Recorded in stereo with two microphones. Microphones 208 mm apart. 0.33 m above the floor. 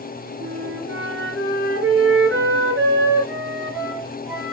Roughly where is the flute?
Right.